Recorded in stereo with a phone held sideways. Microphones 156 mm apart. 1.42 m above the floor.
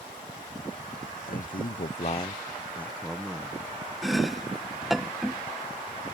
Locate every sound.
1.3 s a man speaking: 65° left (ahead or behind); by 3.6 s 5° right (ahead or behind)
4.0 s chopping: centre (ahead or behind)